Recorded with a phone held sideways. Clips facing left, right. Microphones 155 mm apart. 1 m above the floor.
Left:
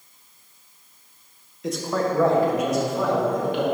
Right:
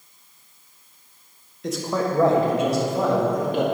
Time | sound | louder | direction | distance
1.6 | a man speaking | even | centre (ahead or behind) | 1.1 m